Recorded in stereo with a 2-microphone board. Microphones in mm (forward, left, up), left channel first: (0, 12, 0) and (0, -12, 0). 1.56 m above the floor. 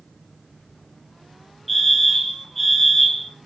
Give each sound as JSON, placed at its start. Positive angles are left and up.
{"t": 1.7, "sound": "a fire alarm", "side_deg": 5, "distance_m": 2.0}